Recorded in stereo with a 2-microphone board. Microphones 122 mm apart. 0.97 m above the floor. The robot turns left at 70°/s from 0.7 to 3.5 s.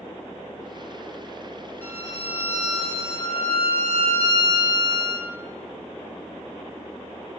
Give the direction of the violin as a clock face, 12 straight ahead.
11 o'clock.